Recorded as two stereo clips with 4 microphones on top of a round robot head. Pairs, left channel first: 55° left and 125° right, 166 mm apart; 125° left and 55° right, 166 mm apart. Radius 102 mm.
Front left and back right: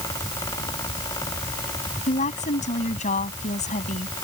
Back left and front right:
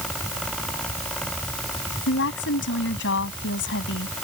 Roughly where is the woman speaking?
Left.